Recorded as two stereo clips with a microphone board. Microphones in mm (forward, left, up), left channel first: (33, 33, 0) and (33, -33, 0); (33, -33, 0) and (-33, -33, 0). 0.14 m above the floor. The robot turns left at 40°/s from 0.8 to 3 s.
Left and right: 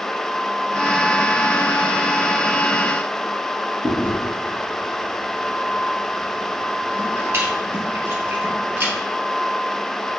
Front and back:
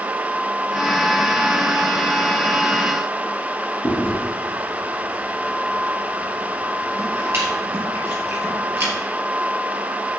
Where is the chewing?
135° right, 3 m.